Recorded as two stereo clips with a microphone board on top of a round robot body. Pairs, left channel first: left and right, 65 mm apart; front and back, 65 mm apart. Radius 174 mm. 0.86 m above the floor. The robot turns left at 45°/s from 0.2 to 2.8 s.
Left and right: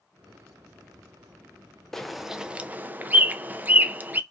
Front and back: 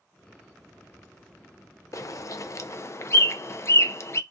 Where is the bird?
5° left, 0.6 m; by 4.2 s 30° right, 0.6 m.